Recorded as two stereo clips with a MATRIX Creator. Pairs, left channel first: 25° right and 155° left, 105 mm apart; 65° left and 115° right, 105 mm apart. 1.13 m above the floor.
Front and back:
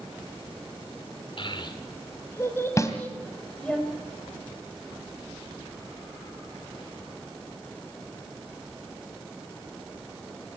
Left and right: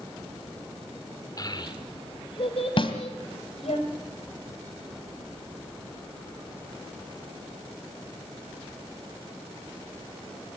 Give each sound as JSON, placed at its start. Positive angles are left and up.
{"t": 1.4, "sound": "a child speaking", "azimuth_deg": 15, "distance_m": 3.0}
{"t": 2.8, "sound": "a snare drum", "azimuth_deg": 35, "distance_m": 2.5}